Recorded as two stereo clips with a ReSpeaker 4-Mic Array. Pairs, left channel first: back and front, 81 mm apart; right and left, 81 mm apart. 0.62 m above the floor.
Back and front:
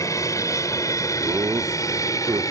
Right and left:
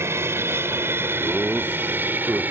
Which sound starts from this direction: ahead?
Laughter, at 1.2 s.